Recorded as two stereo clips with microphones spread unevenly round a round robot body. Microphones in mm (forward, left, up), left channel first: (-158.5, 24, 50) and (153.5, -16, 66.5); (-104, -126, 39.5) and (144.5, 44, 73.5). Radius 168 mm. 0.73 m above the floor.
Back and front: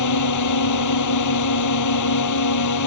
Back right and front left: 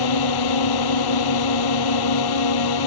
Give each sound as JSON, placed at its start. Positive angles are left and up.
{"t": 0.0, "sound": "a drone", "azimuth_deg": -150}